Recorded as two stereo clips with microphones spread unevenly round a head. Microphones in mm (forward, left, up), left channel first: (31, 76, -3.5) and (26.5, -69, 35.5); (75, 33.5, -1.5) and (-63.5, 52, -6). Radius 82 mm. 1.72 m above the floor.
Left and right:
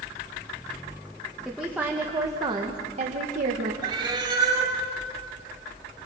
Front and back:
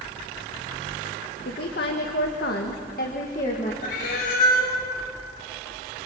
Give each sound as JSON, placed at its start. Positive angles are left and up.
{"t": 1.4, "sound": "a woman speaking", "azimuth_deg": -5, "distance_m": 2.5}
{"t": 3.8, "sound": "a cat meowing", "azimuth_deg": -35, "distance_m": 5.0}